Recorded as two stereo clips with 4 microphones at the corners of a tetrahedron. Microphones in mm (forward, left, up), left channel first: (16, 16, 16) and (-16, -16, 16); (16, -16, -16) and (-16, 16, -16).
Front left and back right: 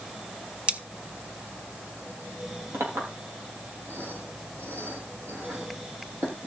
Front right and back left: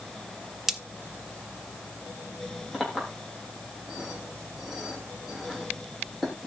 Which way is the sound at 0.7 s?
155° right.